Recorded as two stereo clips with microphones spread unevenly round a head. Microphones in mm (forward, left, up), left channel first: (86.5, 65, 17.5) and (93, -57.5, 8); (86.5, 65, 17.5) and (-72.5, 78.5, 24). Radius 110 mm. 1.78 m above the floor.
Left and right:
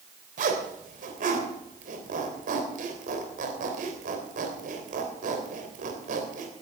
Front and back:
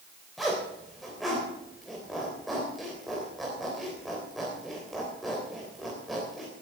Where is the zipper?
95° right, 3 m.